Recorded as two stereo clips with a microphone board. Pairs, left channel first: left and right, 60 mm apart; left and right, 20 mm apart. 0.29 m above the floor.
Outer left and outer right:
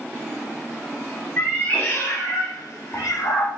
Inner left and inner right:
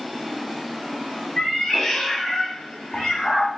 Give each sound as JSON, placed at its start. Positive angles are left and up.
{"t": 1.4, "sound": "a cat meowing", "side_deg": 15, "distance_m": 1.0}